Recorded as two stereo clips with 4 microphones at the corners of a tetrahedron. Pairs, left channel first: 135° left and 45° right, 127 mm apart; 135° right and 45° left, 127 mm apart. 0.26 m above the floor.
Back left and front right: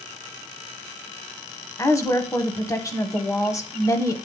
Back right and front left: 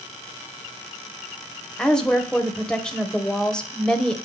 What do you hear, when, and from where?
1.8 s a woman speaking: 150° left, 1.1 m